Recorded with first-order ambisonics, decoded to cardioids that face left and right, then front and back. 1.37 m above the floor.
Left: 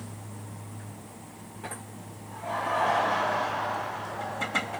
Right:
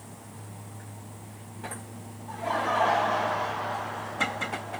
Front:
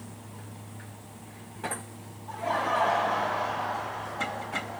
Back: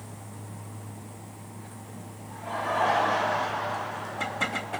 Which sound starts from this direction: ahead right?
Laughter, at 2.3 s.